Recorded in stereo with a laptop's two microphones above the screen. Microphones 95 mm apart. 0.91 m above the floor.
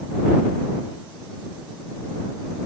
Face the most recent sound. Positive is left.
No sound to turn to.